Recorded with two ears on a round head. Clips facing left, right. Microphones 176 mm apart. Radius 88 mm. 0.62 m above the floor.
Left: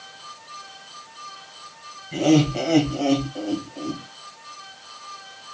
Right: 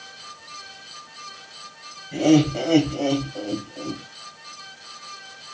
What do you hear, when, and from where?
2.1 s laughter: 20° right (ahead or behind), 3 m; by 4.0 s 35° right (ahead or behind), 3.5 m